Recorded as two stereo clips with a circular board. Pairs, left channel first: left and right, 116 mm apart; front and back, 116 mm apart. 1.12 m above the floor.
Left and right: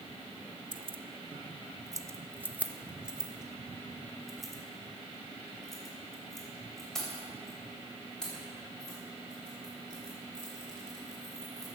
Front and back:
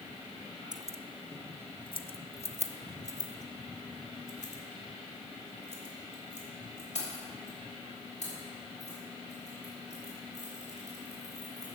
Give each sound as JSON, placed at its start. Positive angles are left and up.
{"t": 0.7, "sound": "keys jangling", "azimuth_deg": -130, "distance_m": 0.6}